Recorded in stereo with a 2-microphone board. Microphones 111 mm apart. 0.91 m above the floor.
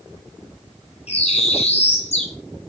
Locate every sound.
1.1 s a bird: 65° left (ahead or behind), 0.9 m